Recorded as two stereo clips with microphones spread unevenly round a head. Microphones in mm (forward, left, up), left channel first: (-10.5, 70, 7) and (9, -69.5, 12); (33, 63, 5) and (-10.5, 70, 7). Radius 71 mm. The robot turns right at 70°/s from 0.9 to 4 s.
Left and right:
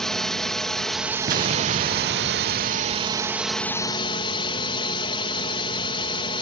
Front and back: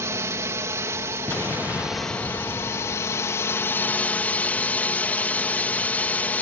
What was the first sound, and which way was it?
A drone, 175° right.